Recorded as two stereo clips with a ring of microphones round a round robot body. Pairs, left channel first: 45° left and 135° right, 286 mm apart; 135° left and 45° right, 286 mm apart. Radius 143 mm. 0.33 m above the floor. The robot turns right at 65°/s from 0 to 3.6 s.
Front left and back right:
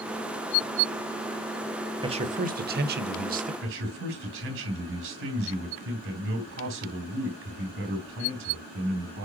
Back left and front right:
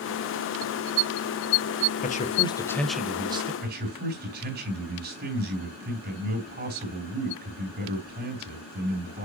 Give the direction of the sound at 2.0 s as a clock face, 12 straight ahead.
6 o'clock.